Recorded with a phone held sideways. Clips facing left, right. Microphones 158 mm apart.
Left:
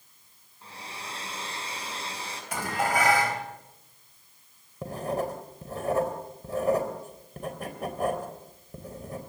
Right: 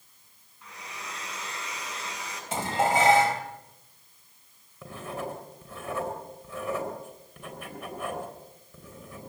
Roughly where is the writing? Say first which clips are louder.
Left 6 dB; left.